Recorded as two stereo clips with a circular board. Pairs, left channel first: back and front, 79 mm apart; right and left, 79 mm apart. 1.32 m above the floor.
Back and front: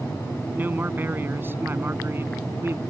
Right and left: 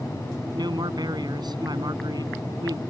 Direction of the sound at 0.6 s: 65° left.